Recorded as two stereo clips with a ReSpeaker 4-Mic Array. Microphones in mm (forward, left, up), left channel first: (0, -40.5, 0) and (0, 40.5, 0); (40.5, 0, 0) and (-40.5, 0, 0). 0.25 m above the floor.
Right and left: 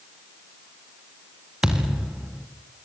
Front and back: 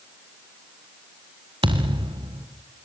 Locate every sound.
1.6 s a thud: 170° left, 3.5 m